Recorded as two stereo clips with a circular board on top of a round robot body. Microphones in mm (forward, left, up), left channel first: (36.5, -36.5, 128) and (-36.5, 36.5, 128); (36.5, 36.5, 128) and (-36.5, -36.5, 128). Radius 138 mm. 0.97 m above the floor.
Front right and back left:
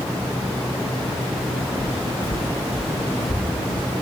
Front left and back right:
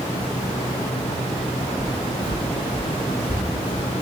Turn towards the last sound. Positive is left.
turn(degrees=-150)